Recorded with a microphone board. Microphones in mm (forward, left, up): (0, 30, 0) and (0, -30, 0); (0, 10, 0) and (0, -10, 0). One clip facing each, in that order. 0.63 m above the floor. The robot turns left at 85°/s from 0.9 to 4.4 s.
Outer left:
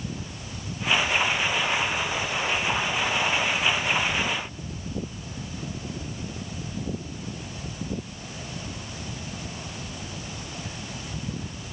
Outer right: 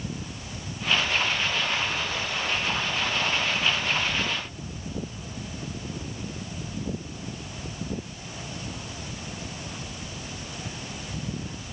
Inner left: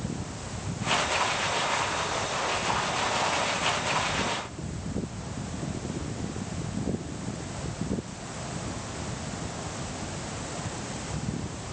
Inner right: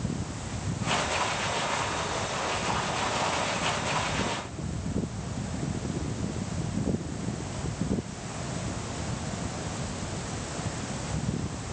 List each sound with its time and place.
Only background noise.